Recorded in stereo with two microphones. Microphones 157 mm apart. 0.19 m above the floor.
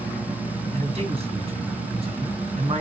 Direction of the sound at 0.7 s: 40° right (ahead or behind).